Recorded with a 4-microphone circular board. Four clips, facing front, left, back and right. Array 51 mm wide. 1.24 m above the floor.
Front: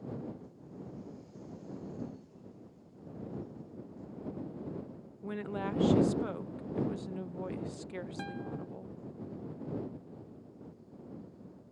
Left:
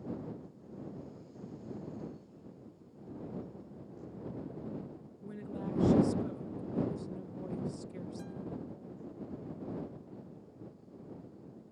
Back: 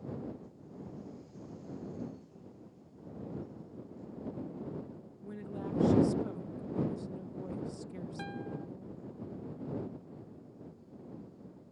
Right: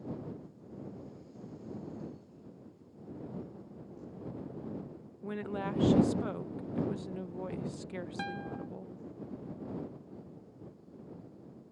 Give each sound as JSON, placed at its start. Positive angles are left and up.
{"t": 5.2, "sound": "a woman speaking", "azimuth_deg": -45}
{"t": 8.2, "sound": "a guitar", "azimuth_deg": -90}